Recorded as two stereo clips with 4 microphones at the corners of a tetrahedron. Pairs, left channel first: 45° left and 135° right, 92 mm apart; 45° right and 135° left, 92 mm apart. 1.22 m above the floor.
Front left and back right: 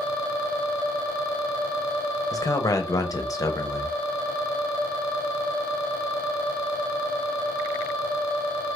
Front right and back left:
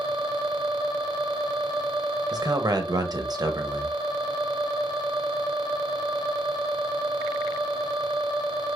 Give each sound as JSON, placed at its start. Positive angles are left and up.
{"t": 2.3, "sound": "a man speaking", "azimuth_deg": 95, "distance_m": 0.7}